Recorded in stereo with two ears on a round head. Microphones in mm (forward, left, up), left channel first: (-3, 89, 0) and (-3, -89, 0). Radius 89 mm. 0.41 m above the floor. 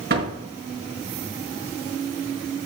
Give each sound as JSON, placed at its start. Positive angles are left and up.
{"t": 0.1, "sound": "a door slam", "side_deg": -50, "distance_m": 4.5}